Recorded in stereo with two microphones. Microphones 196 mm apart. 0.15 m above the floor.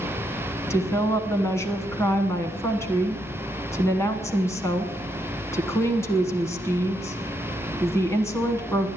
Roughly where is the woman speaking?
Centre.